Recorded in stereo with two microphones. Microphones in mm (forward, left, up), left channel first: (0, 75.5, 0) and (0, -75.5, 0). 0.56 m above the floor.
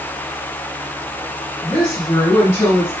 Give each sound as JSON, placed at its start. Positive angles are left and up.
{"t": 1.6, "sound": "a woman speaking", "side_deg": 30, "distance_m": 1.5}